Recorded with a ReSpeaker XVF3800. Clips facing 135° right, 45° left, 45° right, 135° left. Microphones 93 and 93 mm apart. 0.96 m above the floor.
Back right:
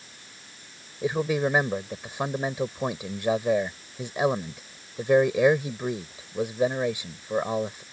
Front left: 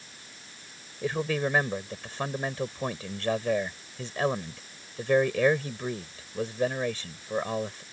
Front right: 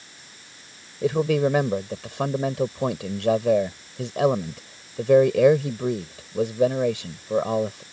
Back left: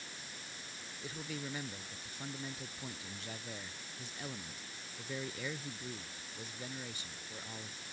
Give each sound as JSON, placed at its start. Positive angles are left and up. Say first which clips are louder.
{"t": 1.0, "sound": "a man speaking", "louder": "back right 3 dB, front right 24 dB", "azimuth_deg": -60}